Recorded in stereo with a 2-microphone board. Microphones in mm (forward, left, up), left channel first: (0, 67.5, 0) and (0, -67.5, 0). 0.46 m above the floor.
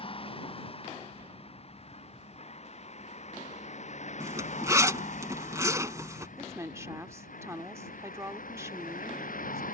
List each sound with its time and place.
0.0 s a vehicle: 45° left (ahead or behind); by 9.7 s 90° left
4.2 s a zipper: 25° right (ahead or behind)
6.4 s a woman speaking: 20° right (ahead or behind)